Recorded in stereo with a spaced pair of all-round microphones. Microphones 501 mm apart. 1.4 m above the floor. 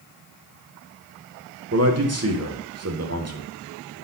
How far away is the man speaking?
About 0.7 m.